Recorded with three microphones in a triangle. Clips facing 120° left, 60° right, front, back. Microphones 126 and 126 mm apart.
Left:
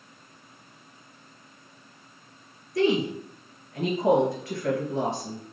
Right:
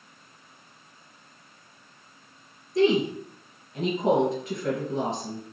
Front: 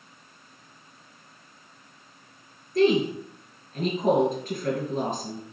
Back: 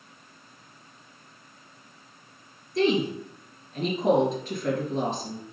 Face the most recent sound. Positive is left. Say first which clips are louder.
# right 2 dB, front 3 dB
turn(degrees=0)